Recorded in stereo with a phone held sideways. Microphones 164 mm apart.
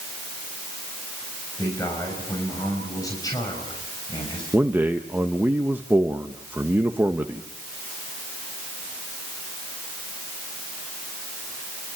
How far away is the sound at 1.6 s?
About 6 m.